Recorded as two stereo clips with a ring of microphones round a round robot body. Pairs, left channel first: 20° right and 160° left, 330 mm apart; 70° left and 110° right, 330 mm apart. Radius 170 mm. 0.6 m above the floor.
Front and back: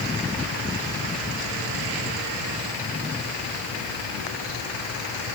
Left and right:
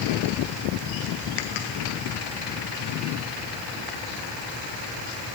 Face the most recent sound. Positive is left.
No sound to turn to.